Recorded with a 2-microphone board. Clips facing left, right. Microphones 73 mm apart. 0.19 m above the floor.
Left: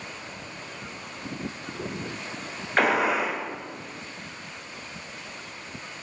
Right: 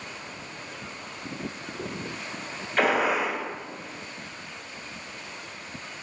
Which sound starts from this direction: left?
A gunshot, at 2.8 s.